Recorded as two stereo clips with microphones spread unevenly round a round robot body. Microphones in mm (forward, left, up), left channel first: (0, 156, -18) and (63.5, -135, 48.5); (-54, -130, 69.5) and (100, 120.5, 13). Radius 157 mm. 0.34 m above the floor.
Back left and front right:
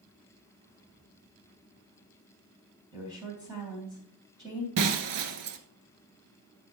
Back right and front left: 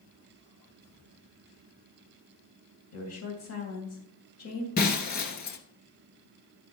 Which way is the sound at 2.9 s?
160° right.